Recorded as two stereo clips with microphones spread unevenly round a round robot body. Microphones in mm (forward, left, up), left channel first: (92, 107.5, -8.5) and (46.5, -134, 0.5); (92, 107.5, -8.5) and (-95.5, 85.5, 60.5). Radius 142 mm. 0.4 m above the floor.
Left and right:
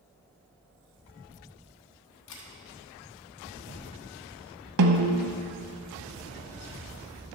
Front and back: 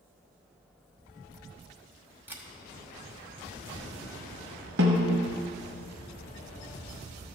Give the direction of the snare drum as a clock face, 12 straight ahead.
4 o'clock.